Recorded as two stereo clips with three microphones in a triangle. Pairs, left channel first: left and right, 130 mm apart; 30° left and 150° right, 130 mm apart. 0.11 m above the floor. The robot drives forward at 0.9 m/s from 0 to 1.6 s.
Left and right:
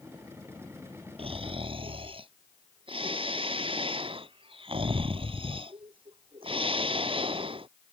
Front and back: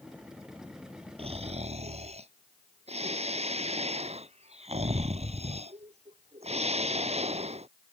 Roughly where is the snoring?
Behind right.